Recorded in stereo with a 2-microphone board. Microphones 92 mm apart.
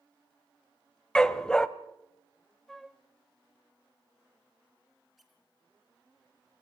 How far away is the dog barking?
About 0.9 m.